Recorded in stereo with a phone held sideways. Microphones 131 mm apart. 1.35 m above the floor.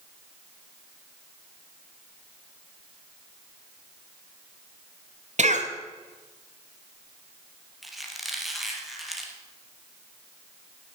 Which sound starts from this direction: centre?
A squeak, at 7.8 s.